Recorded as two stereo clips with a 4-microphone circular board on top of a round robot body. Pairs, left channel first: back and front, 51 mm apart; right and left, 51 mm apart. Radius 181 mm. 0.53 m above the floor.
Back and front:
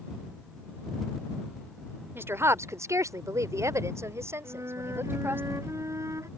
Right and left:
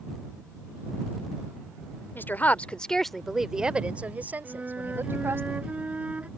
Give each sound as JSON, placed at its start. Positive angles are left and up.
{"t": 2.1, "sound": "a woman speaking", "azimuth_deg": -40}
{"t": 4.4, "sound": "a flute", "azimuth_deg": 25}